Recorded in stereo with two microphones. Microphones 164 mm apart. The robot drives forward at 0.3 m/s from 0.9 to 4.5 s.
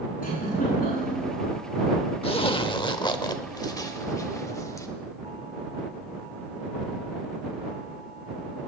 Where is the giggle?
60° left (ahead or behind), 8.5 m.